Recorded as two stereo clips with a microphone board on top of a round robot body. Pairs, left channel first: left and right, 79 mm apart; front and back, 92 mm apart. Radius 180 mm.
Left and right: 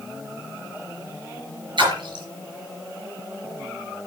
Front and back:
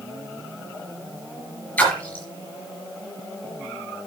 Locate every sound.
1.8 s a splash: 70° right, 4 m